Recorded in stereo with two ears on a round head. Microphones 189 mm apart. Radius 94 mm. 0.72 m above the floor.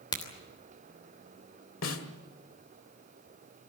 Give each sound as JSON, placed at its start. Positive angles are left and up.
{"t": 0.1, "sound": "a crack", "side_deg": 20, "distance_m": 3.0}
{"t": 1.8, "sound": "a snare drum", "side_deg": 70, "distance_m": 1.9}